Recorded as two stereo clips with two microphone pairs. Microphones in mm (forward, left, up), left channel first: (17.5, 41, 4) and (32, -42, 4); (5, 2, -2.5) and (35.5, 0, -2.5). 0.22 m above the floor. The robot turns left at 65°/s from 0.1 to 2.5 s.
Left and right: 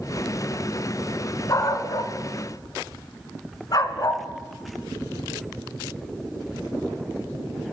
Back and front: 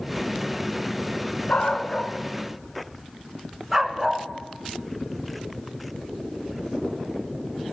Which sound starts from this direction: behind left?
A dog barking, at 1.5 s.